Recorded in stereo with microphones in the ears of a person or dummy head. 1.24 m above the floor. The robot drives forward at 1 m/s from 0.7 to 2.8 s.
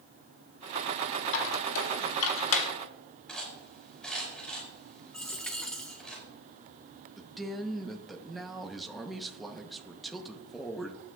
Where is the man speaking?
Centre (ahead or behind), 0.8 m.